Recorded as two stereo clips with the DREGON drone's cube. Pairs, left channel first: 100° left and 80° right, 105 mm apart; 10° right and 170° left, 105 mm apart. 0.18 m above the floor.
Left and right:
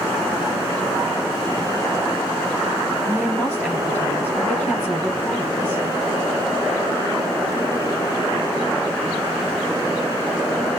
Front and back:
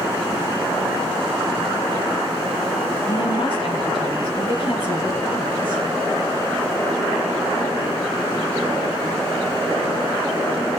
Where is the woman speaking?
20° left, 2.5 m.